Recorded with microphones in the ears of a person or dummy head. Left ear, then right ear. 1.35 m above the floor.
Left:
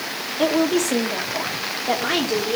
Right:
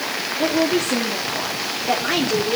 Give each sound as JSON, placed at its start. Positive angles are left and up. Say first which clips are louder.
{"t": 0.4, "sound": "a woman speaking", "louder": "left 1 dB", "side_deg": 50, "distance_m": 3.0}